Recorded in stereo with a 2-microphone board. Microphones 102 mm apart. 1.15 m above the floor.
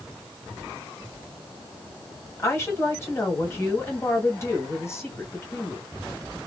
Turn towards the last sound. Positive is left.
turn(degrees=25)  # may be behind; listen again after turning